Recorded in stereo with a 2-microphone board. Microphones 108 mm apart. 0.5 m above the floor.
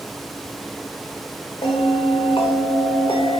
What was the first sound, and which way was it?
A bell, 55° left (ahead or behind).